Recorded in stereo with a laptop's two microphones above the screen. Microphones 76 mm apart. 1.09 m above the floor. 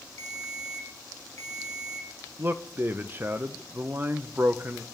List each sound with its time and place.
0.2 s a ringtone: 40° left (ahead or behind), 1.8 m
2.4 s a man speaking: 30° right (ahead or behind), 0.7 m